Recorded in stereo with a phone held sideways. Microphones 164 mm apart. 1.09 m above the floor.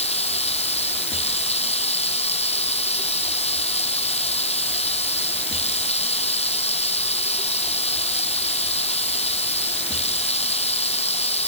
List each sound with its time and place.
0.0 s running water: 40° left (ahead or behind)